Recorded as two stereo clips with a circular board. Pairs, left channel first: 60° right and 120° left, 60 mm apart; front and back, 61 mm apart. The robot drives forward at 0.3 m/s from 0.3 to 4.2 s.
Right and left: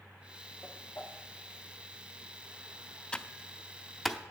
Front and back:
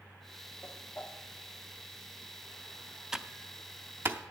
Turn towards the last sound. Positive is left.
turn(degrees=-150)